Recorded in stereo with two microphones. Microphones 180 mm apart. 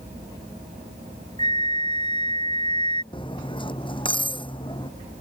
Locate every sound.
1.4 s a flute: 25° left (ahead or behind)
3.1 s cutlery clinking: 25° left (ahead or behind)